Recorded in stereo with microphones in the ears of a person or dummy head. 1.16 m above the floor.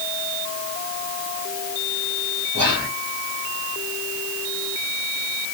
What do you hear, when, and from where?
2.5 s whispering: 15° right (ahead or behind), 2 m